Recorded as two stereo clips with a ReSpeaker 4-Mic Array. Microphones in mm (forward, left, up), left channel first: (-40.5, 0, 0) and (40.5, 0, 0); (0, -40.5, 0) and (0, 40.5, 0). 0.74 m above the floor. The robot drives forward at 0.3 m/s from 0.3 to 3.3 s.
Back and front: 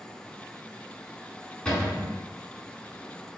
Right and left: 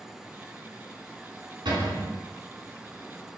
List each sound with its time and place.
1.6 s a cupboard door: 105° left, 1.4 m; by 2.1 s 110° left, 1.5 m